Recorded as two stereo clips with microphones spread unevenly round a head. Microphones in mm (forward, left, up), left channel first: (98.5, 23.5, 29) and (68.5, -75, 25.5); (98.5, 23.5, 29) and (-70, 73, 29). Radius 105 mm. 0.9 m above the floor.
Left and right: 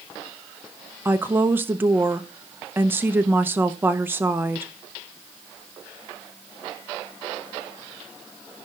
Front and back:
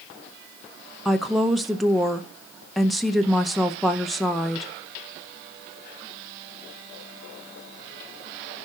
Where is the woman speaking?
105° right, 0.7 m.